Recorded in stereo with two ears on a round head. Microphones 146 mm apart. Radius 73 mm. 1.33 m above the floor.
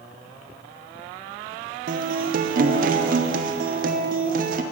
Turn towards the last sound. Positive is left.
turn(degrees=-55)  # may be behind; listen again after turning